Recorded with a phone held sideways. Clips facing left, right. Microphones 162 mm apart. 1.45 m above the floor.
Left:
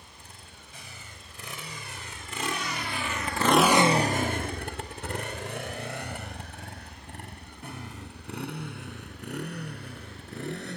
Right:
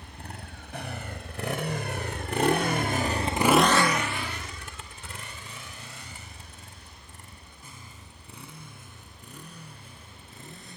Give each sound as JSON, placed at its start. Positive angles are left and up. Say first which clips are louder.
{"t": 0.0, "sound": "a motorcycle", "louder": "right 9 dB", "side_deg": -70}